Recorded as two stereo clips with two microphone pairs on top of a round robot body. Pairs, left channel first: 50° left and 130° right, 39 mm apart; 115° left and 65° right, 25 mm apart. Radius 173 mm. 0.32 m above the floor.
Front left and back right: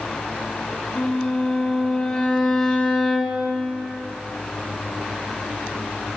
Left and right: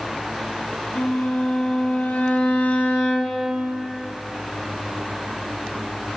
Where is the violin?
120° left, 1.5 m.